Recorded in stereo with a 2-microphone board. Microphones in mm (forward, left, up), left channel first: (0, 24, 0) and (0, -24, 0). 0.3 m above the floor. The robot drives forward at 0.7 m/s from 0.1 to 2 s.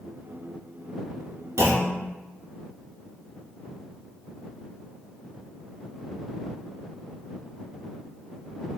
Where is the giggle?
I don't hear a giggle.